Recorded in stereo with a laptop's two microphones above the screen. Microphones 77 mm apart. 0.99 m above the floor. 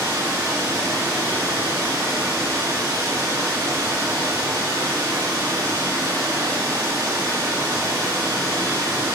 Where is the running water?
30° right (ahead or behind), 1.2 m.